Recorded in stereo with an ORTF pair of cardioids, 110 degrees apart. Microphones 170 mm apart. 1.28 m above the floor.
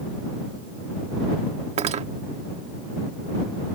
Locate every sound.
1.8 s cutlery clinking: 40° right